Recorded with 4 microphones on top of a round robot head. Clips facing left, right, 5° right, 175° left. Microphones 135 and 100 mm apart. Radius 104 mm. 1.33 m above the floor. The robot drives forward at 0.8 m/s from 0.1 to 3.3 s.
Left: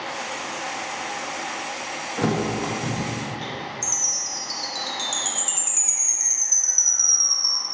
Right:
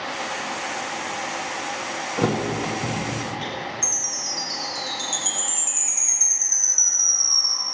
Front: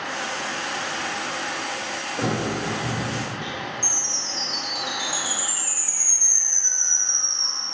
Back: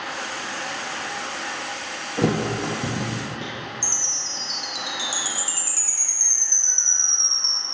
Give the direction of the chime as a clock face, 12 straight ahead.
7 o'clock.